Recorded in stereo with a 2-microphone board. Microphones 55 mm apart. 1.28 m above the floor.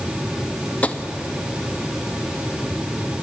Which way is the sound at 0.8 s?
25° left (ahead or behind).